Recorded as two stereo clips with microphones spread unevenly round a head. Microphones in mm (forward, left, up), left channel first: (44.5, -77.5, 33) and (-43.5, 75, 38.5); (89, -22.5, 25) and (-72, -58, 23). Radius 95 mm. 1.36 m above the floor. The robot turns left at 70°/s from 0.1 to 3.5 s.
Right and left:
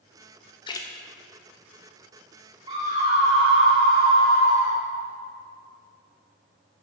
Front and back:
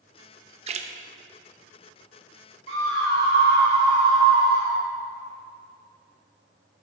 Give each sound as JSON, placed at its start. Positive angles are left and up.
{"t": 0.7, "sound": "a splash", "azimuth_deg": -120, "distance_m": 0.8}
{"t": 2.7, "sound": "a scream", "azimuth_deg": -175, "distance_m": 3.0}